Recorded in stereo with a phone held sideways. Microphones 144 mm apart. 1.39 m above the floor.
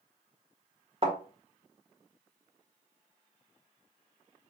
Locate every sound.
1.0 s a thud: 45° right (ahead or behind), 1.8 m